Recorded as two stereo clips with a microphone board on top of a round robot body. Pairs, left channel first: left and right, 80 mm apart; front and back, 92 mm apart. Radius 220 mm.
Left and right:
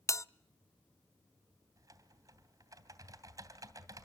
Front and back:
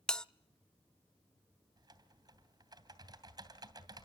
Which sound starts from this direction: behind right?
Typing on a keyboard, at 1.8 s.